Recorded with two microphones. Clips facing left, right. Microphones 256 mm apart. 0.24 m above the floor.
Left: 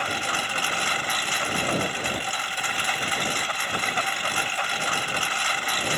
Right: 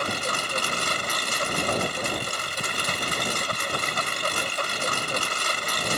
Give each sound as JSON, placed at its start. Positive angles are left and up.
{"t": 0.0, "sound": "a lawn mower", "side_deg": -45}